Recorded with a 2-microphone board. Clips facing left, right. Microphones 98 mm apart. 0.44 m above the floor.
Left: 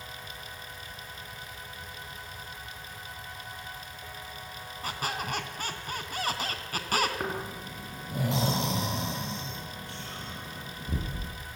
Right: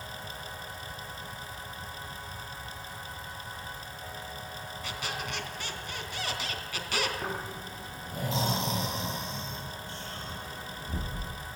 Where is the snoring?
70° left (ahead or behind), 6.5 m.